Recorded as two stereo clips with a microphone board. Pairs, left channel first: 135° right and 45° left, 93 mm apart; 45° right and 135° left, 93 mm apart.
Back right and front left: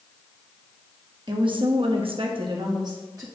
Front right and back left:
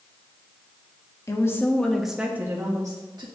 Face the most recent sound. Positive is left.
turn(degrees=95)